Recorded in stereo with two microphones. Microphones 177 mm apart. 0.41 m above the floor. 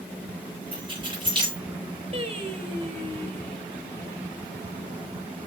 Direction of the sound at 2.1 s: 40° right (ahead or behind).